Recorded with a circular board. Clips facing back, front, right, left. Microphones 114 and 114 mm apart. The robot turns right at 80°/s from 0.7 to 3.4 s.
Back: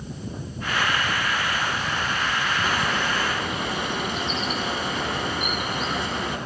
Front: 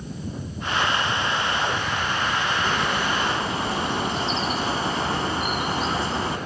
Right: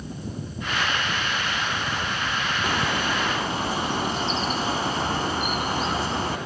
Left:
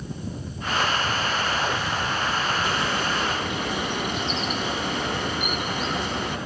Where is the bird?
110° right, 1.3 m; by 6.4 s 50° right, 1.3 m.